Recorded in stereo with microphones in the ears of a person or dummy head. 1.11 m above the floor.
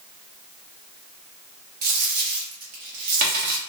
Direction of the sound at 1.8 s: 50° right (ahead or behind).